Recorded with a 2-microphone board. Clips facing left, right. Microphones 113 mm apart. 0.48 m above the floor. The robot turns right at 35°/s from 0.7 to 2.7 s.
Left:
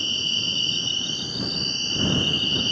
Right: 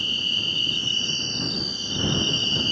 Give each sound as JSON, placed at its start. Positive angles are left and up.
{"t": 0.0, "sound": "an insect", "azimuth_deg": 150}